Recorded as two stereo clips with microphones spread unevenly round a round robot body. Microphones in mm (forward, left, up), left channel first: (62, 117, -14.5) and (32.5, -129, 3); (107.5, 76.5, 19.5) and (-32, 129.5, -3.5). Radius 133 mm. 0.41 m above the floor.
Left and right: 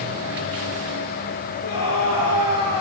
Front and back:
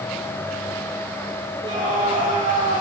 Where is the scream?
100° left, 9 m.